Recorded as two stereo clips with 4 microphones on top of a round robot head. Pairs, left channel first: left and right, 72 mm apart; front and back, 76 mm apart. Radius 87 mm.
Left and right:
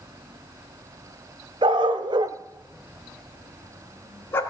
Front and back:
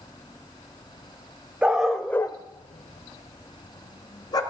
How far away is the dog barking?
About 1.2 m.